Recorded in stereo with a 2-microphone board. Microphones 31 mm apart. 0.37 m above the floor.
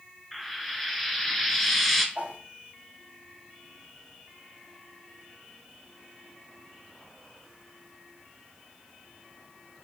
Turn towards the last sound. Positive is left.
turn(degrees=-45)  # may be behind; listen again after turning